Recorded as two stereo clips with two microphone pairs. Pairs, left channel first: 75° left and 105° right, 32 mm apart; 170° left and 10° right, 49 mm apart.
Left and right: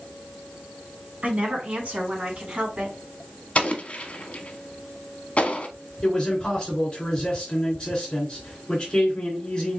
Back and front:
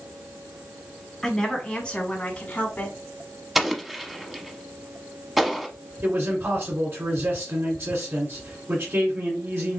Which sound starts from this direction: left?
An explosion, at 3.5 s.